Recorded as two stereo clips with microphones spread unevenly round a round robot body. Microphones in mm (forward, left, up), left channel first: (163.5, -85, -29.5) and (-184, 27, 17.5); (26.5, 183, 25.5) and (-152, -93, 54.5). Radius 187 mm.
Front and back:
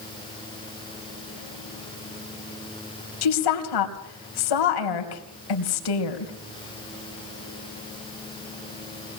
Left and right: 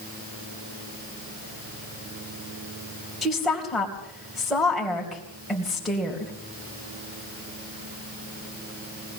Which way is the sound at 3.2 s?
30° right.